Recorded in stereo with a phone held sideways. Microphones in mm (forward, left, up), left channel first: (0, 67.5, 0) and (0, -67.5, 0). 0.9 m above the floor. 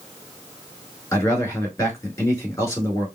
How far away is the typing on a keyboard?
I don't hear typing on a keyboard.